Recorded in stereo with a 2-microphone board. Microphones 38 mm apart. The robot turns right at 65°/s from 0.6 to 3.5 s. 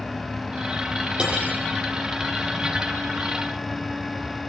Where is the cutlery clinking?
25° right (ahead or behind), 10 m; by 1.6 s 50° right (ahead or behind), 10 m.